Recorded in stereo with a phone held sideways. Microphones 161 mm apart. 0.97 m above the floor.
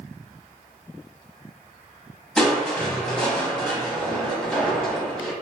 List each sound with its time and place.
2.4 s crushing: 5° left (ahead or behind), 1.0 m